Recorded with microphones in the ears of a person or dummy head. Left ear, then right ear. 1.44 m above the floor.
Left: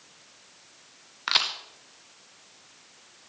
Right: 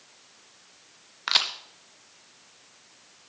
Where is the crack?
10° right (ahead or behind), 0.8 m.